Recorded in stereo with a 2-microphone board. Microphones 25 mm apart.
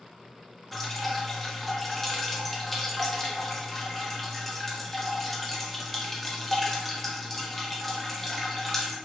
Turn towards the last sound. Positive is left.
turn(degrees=0)  # may be behind; listen again after turning